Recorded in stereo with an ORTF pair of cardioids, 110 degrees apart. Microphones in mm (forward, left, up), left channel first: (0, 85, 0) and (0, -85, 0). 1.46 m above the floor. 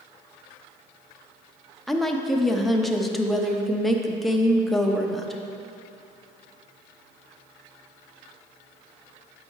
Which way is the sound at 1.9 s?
Straight ahead.